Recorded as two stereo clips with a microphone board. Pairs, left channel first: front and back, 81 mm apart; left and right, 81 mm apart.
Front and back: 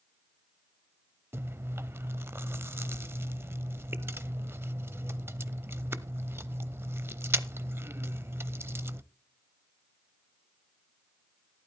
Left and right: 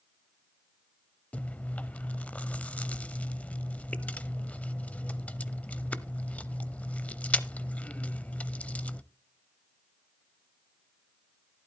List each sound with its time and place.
1.3 s chewing: 150° left, 0.6 m